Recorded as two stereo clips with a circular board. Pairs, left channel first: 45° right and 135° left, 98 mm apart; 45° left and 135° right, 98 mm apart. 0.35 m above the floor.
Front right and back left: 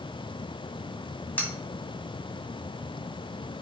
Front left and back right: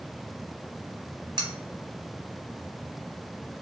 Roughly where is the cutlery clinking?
Behind right.